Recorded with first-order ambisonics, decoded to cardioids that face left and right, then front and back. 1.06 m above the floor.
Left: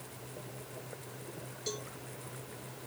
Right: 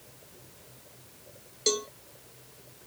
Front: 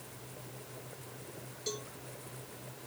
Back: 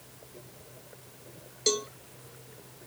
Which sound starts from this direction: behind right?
A cowbell, at 1.7 s.